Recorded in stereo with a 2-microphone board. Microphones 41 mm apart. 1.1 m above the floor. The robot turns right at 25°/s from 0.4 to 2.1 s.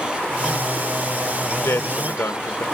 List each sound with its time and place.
1.6 s a man speaking: 85° left, 0.8 m; by 2.6 s 75° left (ahead or behind), 0.8 m